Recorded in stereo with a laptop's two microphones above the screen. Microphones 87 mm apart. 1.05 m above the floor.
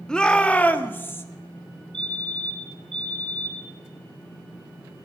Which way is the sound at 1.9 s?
75° right (ahead or behind).